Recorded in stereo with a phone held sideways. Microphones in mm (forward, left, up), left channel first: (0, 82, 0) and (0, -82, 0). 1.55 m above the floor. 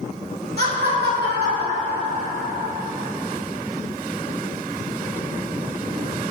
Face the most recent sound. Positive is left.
turn(degrees=-50)  # may be behind; listen again after turning